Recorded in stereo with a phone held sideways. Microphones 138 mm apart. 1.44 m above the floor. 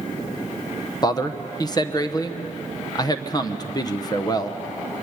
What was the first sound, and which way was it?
A man speaking, 30° left (ahead or behind).